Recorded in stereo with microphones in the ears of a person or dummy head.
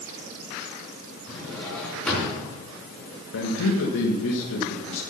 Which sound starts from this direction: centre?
A drawer, at 1.3 s.